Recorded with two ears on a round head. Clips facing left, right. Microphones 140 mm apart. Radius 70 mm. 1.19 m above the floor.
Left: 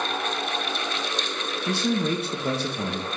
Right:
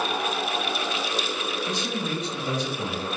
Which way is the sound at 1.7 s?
50° left (ahead or behind).